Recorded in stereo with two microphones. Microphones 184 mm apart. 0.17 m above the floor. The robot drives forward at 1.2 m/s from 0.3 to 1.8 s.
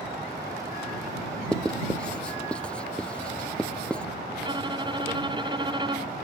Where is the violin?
25° right (ahead or behind).